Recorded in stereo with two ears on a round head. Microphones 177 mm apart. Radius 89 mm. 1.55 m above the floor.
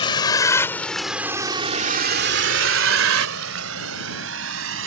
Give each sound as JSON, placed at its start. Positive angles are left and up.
{"t": 0.0, "sound": "a vehicle", "side_deg": 25}